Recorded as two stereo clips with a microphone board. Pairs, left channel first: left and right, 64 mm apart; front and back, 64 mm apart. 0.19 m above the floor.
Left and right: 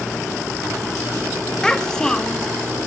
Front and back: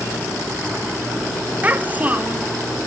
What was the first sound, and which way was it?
A child speaking, 155° left.